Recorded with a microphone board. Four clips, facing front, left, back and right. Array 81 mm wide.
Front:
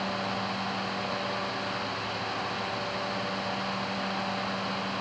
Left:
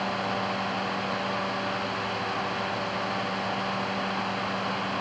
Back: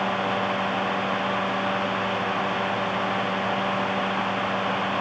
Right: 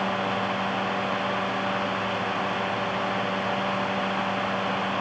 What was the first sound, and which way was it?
Only background noise.